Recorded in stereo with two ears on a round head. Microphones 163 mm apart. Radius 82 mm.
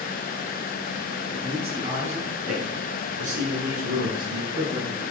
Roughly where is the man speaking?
Right.